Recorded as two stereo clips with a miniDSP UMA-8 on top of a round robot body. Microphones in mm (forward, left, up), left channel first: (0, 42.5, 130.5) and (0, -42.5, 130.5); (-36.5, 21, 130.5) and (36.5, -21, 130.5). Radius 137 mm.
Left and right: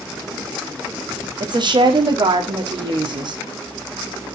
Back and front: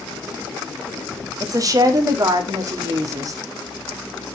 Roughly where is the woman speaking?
Right.